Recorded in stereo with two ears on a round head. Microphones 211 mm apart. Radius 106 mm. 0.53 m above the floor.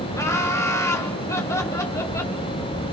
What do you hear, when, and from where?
0.1 s laughter: 10° left (ahead or behind), 2.5 m